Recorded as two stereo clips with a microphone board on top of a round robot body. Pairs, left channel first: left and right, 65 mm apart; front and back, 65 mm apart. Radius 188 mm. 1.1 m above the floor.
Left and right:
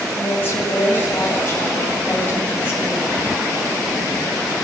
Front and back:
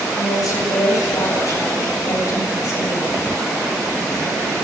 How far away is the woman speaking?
About 8.5 m.